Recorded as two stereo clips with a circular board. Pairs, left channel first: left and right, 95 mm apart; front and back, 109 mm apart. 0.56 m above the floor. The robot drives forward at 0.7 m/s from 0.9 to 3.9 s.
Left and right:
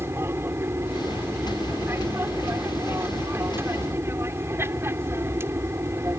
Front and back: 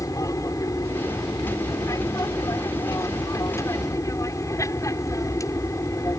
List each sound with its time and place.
0.0 s an aircraft: 40° right